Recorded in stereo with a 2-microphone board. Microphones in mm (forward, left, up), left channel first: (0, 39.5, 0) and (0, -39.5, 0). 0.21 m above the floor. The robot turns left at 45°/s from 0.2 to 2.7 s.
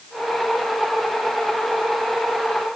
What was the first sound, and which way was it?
Only background noise.